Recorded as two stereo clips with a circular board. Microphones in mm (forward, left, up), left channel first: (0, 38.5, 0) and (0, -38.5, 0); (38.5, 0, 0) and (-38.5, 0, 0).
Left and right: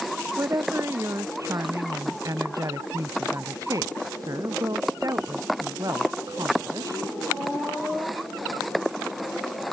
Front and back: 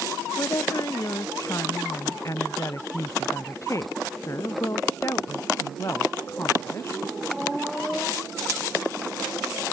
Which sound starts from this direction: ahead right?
A woman speaking, at 0.4 s.